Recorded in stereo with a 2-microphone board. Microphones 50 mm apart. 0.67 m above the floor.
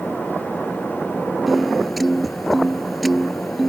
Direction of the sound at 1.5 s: Centre (ahead or behind).